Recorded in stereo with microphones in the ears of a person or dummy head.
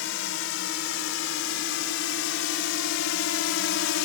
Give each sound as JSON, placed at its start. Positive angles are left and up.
{"t": 0.0, "sound": "a drone", "side_deg": 65}